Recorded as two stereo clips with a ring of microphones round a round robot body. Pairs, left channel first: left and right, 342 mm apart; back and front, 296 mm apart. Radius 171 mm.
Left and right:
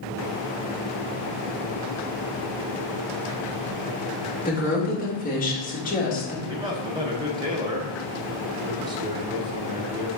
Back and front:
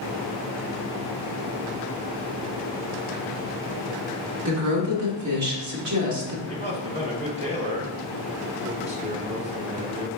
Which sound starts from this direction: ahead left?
A woman speaking, at 4.5 s.